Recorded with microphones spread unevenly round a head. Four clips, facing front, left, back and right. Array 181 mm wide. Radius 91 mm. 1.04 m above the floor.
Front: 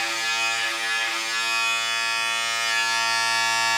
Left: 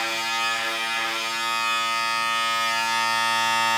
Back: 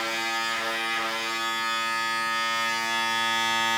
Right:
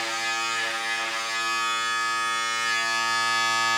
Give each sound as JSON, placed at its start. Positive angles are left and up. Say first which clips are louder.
{"t": 0.0, "sound": "a machine running", "louder": "left 2 dB, front 1 dB", "azimuth_deg": 145, "distance_m": 8.5}